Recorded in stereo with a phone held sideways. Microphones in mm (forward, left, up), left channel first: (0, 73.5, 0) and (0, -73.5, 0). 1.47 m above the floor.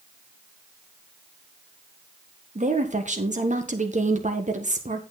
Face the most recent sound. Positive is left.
turn(degrees=-55)  # may be behind; listen again after turning